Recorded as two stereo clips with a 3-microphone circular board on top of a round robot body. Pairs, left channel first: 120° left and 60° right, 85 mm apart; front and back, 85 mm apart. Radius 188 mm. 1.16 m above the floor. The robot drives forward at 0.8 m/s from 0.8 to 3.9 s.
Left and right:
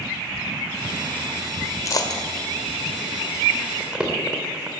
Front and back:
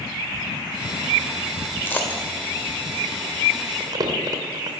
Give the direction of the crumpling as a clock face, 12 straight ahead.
5 o'clock.